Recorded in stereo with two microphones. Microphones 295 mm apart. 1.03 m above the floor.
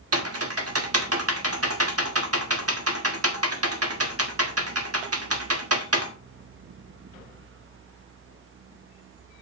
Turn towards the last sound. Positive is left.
turn(degrees=-50)  # may be behind; listen again after turning